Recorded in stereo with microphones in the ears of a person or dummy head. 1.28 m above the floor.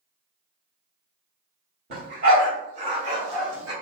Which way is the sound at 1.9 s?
55° right (ahead or behind).